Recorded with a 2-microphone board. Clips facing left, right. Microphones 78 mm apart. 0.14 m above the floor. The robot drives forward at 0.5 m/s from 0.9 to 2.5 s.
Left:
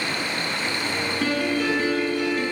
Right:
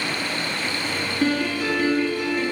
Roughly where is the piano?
Centre.